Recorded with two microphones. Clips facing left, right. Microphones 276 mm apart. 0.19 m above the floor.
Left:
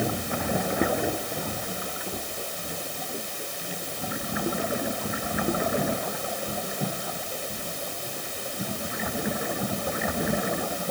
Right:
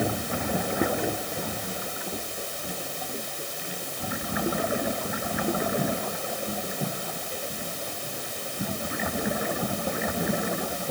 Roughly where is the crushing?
I don't hear crushing.